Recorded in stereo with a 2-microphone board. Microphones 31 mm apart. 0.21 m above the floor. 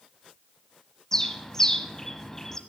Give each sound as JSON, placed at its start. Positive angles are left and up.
{"t": 1.1, "sound": "a bird", "side_deg": 15, "distance_m": 1.1}